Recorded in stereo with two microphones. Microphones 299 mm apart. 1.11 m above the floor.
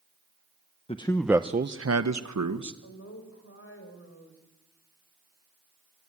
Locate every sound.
0.9 s a man speaking: 20° left (ahead or behind), 1.0 m; by 2.7 s 70° right (ahead or behind), 1.5 m
2.8 s a woman speaking: 45° left (ahead or behind), 5.5 m